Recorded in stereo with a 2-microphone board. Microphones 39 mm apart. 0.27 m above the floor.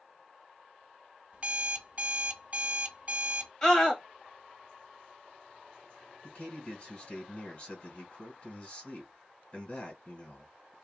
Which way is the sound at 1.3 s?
35° right (ahead or behind).